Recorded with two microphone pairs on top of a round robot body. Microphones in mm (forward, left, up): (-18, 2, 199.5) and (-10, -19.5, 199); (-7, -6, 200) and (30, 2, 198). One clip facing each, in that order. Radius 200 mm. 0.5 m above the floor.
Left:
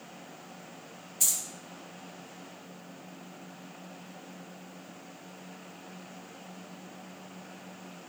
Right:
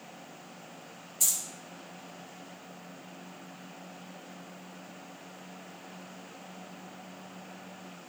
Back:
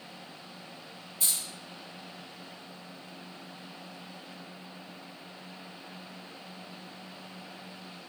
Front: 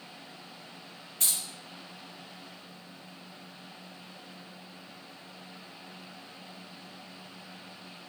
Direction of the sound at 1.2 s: 25° left.